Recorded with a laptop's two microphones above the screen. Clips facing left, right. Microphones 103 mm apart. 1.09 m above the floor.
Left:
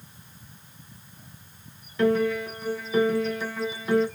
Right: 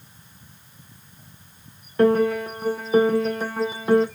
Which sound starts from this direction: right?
A piano, at 2.0 s.